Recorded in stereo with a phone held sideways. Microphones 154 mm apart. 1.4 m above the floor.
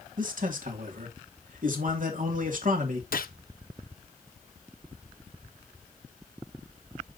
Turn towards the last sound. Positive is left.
turn(degrees=70)  # may be behind; listen again after turning